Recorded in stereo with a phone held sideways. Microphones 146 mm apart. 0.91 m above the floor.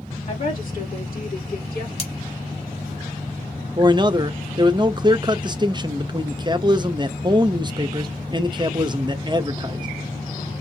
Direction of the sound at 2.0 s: 35° left (ahead or behind).